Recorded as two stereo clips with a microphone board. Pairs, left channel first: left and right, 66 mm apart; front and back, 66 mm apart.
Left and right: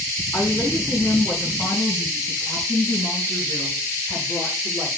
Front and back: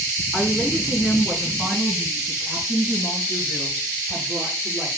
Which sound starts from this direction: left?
A woman speaking, at 0.3 s.